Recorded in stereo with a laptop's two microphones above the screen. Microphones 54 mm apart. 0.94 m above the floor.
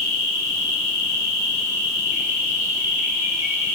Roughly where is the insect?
Right.